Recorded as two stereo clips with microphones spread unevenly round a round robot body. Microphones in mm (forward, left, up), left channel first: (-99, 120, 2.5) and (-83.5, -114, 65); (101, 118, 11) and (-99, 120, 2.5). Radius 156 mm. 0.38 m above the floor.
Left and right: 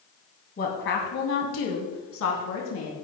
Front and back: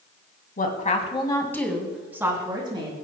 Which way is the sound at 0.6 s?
40° left.